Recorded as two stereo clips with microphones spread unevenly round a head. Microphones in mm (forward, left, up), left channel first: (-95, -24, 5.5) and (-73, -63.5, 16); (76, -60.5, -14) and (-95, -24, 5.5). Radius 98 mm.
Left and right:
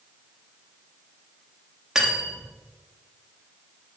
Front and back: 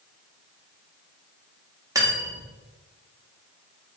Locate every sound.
1.9 s cutlery clinking: 130° right, 0.7 m